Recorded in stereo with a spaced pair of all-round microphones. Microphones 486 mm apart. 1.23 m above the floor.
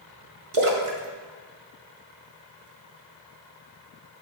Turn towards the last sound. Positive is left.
turn(degrees=-85)